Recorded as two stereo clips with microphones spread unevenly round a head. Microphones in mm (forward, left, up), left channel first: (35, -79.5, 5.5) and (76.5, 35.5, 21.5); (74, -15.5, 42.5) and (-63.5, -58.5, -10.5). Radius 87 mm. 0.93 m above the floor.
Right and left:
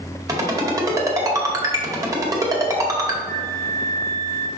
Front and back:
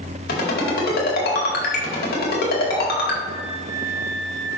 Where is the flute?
20° right, 1.2 m.